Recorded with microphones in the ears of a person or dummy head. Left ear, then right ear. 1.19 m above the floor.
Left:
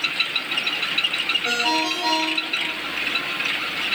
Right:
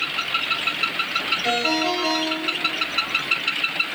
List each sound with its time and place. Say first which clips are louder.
1.4 s a ringtone: even; centre (ahead or behind), 2.5 m